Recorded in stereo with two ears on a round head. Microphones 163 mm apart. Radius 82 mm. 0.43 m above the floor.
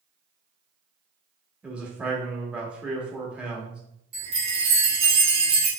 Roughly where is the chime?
Right.